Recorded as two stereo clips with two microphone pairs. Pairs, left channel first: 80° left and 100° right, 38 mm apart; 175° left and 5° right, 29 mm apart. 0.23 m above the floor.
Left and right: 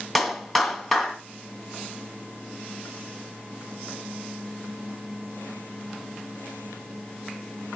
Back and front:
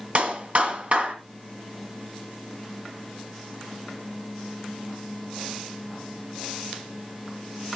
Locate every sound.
0.1 s a clap: 10° right, 1.9 m